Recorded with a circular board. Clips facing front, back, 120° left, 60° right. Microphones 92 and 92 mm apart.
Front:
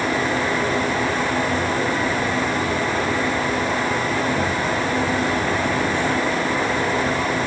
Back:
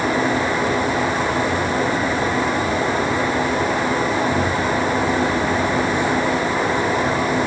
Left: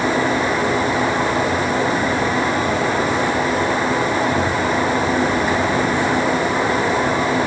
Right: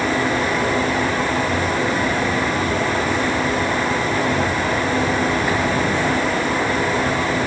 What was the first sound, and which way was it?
Only background noise.